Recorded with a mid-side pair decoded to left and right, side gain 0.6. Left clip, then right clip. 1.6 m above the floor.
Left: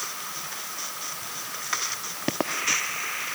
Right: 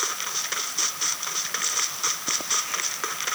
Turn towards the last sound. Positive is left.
No sound to turn to.